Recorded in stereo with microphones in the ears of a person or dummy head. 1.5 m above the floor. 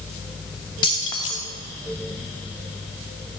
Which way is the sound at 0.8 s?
30° left (ahead or behind).